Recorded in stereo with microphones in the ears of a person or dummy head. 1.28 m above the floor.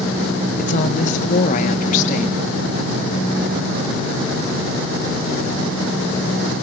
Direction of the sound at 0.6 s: 40° left (ahead or behind).